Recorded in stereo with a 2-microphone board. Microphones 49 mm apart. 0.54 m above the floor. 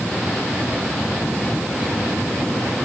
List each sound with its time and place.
Only background noise.